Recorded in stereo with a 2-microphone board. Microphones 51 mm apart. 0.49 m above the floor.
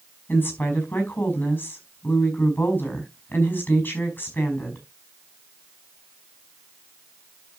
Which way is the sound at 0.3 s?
35° left (ahead or behind).